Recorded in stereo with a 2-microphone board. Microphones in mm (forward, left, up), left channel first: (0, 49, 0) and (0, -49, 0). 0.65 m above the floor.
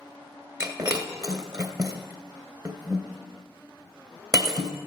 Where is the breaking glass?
40° right (ahead or behind), 1.6 m.